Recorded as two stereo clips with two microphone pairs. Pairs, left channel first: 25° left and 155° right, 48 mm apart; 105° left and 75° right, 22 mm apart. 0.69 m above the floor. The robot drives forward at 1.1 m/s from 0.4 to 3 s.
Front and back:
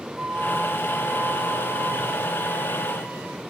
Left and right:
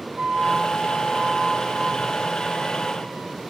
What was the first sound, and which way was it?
A flute, 70° right.